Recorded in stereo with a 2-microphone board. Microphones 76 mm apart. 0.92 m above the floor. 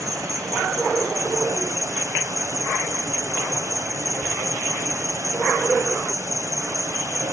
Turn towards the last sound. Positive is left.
turn(degrees=-45)  # may be behind; listen again after turning